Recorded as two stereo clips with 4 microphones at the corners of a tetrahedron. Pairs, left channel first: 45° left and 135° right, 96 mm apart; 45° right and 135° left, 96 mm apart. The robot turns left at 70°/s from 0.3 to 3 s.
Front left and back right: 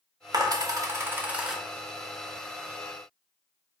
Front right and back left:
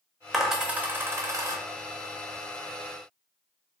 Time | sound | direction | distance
0.3 | a dropped coin | 135° right | 0.5 m